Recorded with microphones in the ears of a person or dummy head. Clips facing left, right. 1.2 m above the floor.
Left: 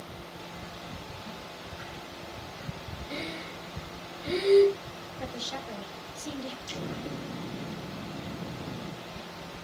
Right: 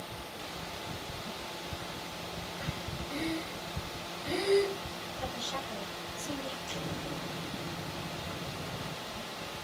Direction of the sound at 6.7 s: 50° left (ahead or behind).